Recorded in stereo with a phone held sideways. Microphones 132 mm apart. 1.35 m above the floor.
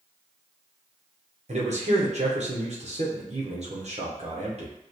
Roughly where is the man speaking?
Right.